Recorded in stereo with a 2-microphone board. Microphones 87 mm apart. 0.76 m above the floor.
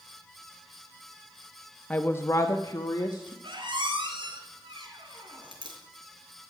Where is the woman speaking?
20° left (ahead or behind), 0.7 m; by 3.3 s 55° left (ahead or behind), 1.4 m.